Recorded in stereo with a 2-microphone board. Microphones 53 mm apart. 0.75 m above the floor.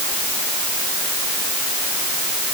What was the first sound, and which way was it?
Only background noise.